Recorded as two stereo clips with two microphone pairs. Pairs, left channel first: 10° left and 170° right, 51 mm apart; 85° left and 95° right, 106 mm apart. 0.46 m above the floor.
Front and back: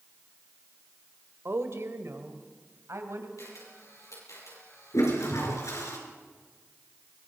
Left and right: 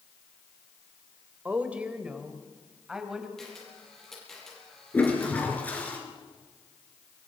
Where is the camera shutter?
5° right, 7.5 m.